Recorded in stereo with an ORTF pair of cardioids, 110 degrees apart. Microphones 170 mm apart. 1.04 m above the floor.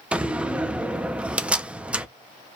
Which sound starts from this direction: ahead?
A door slam, at 0.1 s.